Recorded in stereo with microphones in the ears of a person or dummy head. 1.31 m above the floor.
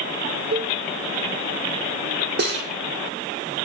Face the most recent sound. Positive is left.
turn(degrees=-55)  # may be behind; listen again after turning